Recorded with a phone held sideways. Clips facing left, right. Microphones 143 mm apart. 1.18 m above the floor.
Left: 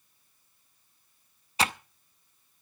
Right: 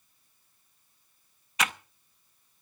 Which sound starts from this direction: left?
Typing on a keyboard, at 1.6 s.